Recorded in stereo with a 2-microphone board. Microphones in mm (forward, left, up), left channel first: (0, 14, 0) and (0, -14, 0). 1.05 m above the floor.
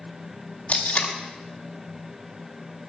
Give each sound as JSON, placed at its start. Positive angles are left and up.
{"t": 0.7, "sound": "tape being pulled", "side_deg": 60, "distance_m": 1.5}